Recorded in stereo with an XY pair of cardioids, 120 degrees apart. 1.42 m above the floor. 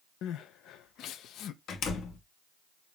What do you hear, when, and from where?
0.2 s crying: 70° left, 0.9 m
1.7 s a door slam: 60° left, 2 m